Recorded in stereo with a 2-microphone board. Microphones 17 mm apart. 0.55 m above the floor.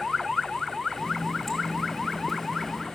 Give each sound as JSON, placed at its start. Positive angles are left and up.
{"t": 1.0, "sound": "a running tap", "side_deg": 20, "distance_m": 3.5}